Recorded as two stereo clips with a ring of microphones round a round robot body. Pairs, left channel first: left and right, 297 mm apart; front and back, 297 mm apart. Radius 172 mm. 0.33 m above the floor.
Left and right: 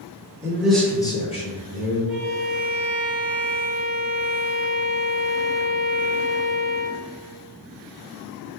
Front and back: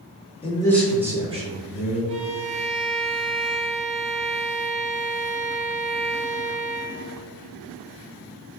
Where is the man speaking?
25° right, 0.9 m; by 2.0 s 140° left, 1.2 m.